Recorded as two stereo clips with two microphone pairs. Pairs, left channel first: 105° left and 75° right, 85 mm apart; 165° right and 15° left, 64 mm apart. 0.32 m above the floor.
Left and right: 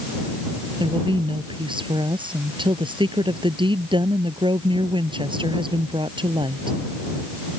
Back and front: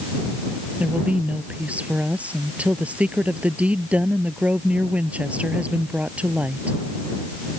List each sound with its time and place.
0.8 s a woman speaking: 55° right